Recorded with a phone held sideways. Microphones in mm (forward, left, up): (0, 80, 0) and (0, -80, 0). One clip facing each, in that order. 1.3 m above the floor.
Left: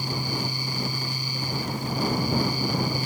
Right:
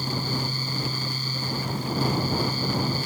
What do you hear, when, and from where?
0.0 s a fan: 15° left (ahead or behind)